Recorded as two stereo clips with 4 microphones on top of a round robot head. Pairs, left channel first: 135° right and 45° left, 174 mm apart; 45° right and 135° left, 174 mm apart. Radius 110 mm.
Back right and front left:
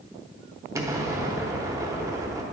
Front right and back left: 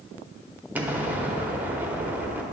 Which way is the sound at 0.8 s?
75° left.